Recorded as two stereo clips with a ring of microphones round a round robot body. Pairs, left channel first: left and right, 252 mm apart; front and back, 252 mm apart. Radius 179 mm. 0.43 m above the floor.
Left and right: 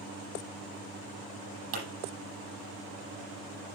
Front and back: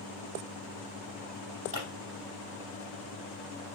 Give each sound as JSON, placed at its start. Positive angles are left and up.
{"t": 1.7, "sound": "a pop", "azimuth_deg": -110, "distance_m": 6.5}